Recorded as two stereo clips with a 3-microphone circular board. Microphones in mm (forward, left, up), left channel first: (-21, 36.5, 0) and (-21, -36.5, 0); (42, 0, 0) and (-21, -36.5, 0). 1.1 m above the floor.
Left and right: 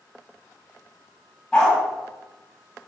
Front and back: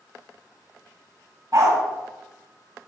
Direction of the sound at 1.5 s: 170° left.